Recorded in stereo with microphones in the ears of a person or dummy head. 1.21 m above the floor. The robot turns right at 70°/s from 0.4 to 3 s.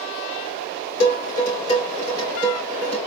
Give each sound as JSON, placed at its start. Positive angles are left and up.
{"t": 1.0, "sound": "dishes clattering", "side_deg": 70, "distance_m": 3.0}